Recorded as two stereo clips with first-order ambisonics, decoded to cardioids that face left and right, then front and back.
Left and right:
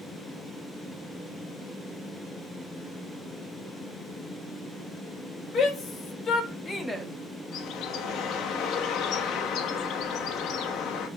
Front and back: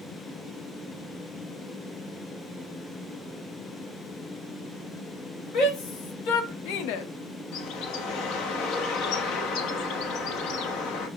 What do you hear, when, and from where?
5.5 s a shout: 30° left, 3 m; by 7.1 s 5° right, 0.9 m
7.5 s a bird: 40° left, 1.1 m